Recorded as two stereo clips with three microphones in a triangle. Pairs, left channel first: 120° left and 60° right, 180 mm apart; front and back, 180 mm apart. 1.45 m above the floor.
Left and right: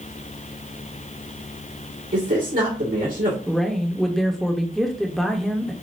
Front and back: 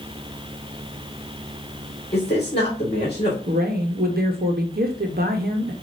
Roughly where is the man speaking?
Ahead right.